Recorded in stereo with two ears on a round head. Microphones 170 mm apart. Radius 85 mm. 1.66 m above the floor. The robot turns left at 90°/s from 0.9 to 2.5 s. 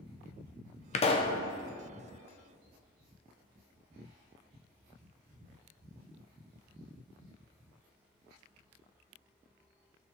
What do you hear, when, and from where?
0.9 s a pop: 70° left, 0.7 m; by 1.4 s 30° left, 0.7 m